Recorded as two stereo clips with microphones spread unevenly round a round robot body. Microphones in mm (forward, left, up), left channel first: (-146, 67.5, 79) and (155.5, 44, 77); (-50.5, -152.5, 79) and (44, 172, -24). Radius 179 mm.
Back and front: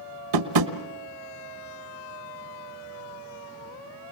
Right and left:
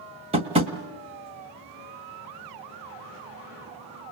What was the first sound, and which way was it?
Tapping, straight ahead.